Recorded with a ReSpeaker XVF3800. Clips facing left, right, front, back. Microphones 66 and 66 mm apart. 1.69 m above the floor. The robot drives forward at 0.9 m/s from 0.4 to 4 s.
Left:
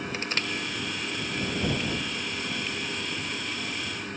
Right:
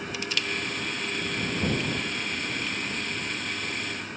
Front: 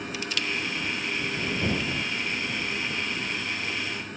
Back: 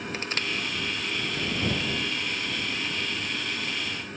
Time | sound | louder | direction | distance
0.1 | crushing | even, even | 135° left | 0.8 m